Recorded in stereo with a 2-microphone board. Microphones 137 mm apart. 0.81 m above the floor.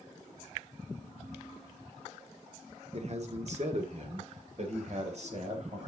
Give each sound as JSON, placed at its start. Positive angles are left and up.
{"t": 2.9, "sound": "a man speaking", "side_deg": -55, "distance_m": 1.6}